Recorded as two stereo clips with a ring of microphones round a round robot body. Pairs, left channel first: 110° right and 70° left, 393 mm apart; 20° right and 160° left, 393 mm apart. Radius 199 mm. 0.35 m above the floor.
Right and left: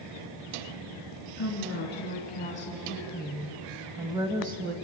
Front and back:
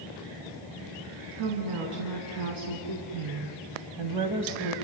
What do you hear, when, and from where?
1.4 s a woman speaking: 170° right, 3.5 m; by 4.7 s 130° left, 1.8 m